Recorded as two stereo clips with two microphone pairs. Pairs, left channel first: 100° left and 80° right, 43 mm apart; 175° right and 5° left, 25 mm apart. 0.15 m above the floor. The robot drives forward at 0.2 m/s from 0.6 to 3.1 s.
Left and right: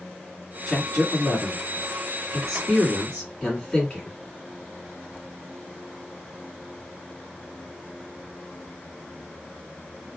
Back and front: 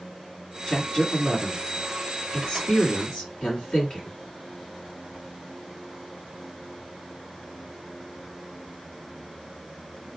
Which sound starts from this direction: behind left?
A man speaking, at 0.7 s.